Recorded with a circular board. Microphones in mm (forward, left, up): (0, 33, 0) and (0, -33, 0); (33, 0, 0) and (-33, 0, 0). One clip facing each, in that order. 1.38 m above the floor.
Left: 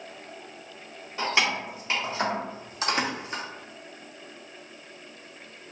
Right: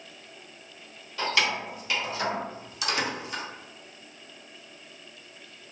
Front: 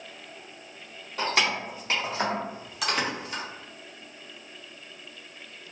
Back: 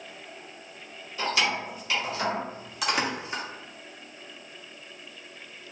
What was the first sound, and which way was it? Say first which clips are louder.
Keys jangling: left 1 dB, front 1 dB; 25° left.